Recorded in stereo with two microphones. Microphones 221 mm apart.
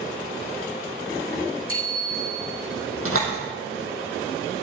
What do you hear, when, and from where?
1.7 s a bicycle bell: 80° right, 6.5 m
3.0 s a door slam: 80° right, 4.5 m